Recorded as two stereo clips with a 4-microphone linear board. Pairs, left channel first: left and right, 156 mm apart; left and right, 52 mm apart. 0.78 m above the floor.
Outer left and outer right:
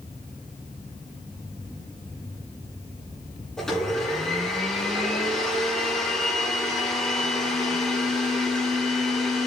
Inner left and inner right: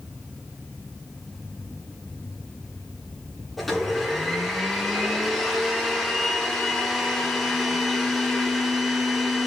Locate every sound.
3.6 s a blender: 5° left (ahead or behind), 8.5 m